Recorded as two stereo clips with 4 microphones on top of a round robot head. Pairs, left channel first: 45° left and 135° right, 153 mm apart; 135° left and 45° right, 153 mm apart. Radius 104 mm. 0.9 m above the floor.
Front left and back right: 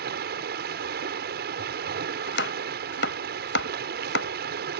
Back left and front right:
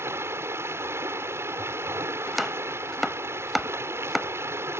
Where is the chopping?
45° left.